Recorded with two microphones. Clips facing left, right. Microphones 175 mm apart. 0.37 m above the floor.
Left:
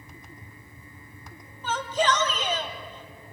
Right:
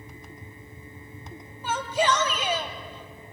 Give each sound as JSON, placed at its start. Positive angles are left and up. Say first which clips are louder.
{"t": 1.6, "sound": "a shout", "louder": "even", "side_deg": -10, "distance_m": 2.0}